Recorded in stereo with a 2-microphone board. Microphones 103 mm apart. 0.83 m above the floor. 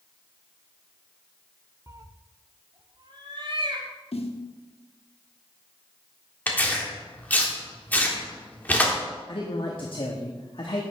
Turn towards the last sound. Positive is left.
turn(degrees=55)  # may be behind; listen again after turning